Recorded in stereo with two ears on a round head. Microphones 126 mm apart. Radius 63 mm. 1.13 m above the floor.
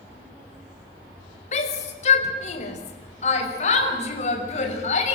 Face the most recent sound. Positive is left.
turn(degrees=55)  # may be behind; listen again after turning